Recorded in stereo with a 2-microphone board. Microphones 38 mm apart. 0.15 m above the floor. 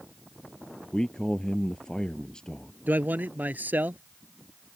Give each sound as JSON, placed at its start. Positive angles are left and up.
{"t": 0.9, "sound": "a man speaking", "side_deg": 20}
{"t": 2.9, "sound": "a man speaking", "side_deg": -50}